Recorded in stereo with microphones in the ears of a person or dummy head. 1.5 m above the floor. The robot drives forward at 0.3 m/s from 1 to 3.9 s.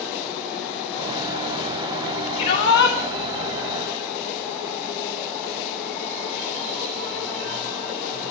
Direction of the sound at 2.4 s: 65° left (ahead or behind).